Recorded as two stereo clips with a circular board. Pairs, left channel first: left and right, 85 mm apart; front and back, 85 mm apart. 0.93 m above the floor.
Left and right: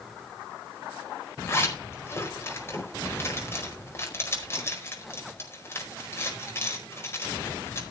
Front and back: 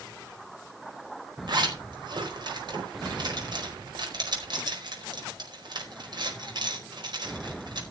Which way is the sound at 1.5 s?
150° left.